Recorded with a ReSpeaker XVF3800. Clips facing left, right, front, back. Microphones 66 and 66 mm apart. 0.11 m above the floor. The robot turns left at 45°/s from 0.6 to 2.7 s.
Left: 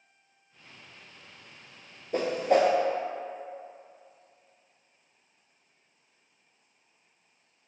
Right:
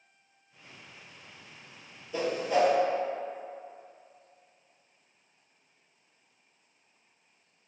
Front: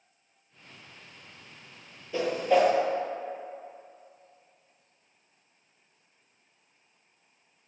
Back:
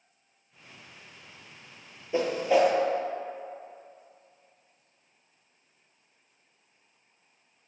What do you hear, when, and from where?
2.1 s a whoosh: 115° left, 0.5 m; by 2.7 s 90° left, 0.5 m